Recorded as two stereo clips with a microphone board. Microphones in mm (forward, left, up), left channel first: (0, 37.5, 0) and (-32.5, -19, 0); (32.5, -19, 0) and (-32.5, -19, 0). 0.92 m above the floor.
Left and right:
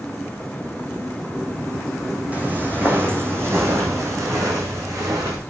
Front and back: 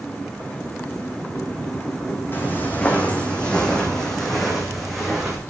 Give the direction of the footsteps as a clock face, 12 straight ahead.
2 o'clock.